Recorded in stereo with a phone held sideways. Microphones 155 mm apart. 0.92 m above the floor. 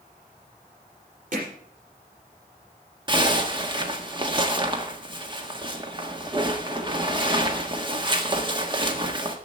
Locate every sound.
1.3 s hammering: 55° right (ahead or behind), 5.5 m
3.1 s a zipper: 30° right (ahead or behind), 1.4 m